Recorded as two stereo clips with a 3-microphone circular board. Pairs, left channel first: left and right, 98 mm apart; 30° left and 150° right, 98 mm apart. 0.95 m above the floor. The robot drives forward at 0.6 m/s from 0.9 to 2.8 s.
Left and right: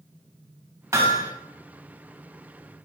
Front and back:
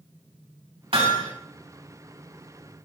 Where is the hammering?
150° right, 3 m.